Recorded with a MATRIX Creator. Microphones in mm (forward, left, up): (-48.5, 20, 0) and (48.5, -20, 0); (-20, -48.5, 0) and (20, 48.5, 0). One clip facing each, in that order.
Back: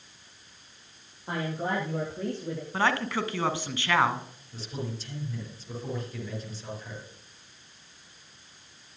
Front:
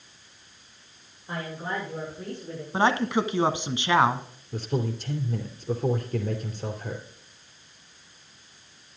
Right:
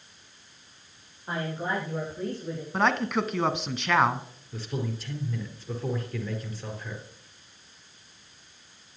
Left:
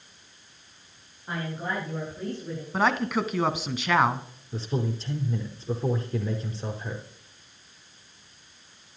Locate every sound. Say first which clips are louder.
1.3 s a woman speaking: back 2 dB, right 1 dB; straight behind, 8 m; by 2.6 s 170° left, 8.5 m
2.7 s a man speaking: front 5 dB, left 1 dB; 15° right, 1.2 m
4.5 s a man speaking: front 8 dB, left 3 dB; 5° left, 3 m